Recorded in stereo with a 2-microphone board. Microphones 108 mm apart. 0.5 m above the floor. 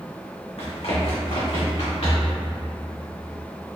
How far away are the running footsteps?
About 1.8 m.